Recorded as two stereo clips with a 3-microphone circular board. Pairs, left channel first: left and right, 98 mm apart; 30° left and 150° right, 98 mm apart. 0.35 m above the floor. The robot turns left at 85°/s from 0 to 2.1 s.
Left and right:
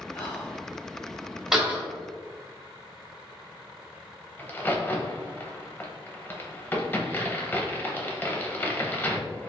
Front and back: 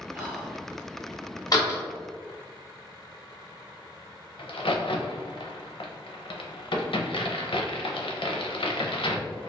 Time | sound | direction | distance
0.1 | whispering | 150° left | 1.6 m
1.5 | a door slam | 5° right | 1.1 m
4.4 | a crack | 25° left | 0.5 m